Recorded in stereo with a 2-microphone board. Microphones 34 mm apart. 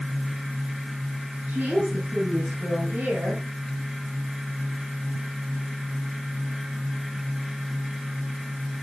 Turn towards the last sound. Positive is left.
turn(degrees=-75)  # may be behind; listen again after turning